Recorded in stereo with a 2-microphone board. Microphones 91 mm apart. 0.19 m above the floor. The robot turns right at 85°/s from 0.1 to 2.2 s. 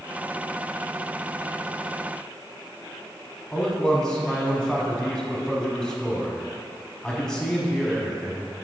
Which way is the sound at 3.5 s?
10° left (ahead or behind).